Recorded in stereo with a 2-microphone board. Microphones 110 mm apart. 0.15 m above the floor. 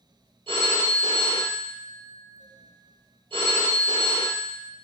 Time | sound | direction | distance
0.5 | a phone ringing | 60° right (ahead or behind) | 2.0 m